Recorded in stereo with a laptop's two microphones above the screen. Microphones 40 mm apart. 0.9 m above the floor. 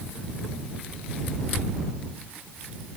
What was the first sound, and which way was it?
Only background noise.